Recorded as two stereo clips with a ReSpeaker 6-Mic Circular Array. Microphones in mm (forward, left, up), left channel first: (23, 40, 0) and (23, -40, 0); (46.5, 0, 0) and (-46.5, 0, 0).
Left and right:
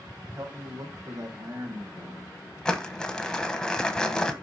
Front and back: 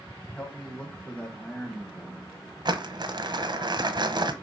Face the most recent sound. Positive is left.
turn(degrees=170)